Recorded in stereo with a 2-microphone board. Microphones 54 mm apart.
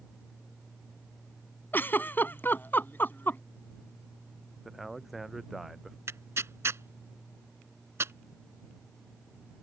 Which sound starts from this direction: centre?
A man speaking, at 4.7 s.